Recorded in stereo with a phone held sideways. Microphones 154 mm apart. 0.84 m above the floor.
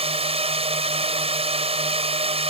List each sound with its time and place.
0.0 s a drone: 40° right (ahead or behind)